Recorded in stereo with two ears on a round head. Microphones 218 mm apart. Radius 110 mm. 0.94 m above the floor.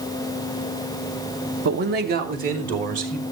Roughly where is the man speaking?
Right.